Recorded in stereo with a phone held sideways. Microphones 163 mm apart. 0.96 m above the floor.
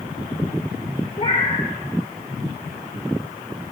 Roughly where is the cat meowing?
Left.